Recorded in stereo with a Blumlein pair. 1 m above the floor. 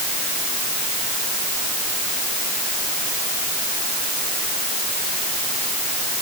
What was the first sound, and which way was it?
Only background noise.